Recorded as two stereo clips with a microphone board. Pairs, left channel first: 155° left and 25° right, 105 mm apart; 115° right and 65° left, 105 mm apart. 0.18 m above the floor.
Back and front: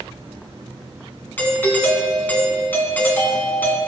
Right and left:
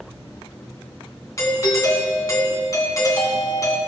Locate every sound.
1.4 s a doorbell: 140° right, 1.9 m